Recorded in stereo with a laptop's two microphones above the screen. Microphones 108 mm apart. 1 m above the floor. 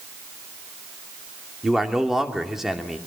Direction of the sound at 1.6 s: 5° right (ahead or behind).